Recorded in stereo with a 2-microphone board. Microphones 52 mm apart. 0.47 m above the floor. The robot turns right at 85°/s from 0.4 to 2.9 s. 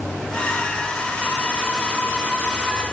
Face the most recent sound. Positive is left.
No sound to turn to.